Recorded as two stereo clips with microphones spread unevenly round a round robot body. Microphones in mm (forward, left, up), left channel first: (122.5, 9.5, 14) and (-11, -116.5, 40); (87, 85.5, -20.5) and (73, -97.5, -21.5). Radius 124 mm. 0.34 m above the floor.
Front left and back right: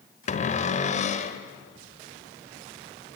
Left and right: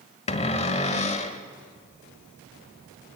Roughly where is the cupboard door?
Ahead left.